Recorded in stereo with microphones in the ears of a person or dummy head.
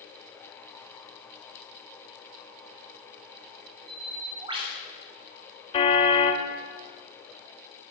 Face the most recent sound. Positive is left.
turn(degrees=30)  # may be behind; listen again after turning